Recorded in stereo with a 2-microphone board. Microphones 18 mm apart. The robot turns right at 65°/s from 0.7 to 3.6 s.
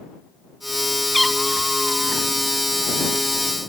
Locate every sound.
1.1 s a cat meowing: 170° left; by 2.3 s 115° right